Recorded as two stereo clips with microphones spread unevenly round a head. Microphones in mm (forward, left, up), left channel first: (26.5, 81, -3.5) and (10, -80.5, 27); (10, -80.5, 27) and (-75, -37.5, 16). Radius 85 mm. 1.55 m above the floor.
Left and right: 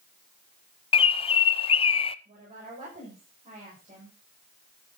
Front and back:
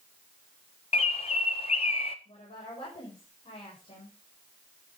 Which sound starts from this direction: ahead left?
A bird, at 0.9 s.